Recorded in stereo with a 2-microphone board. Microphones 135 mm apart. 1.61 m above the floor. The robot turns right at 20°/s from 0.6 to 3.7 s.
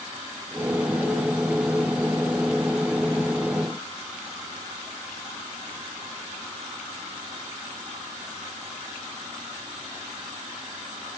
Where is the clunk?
I don't hear a clunk.